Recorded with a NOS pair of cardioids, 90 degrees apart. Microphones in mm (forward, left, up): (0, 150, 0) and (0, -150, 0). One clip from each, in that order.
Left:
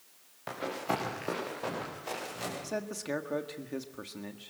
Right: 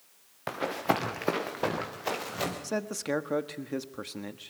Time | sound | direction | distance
0.5 | running footsteps | 45° right | 5 m
2.6 | a man speaking | 30° right | 1.5 m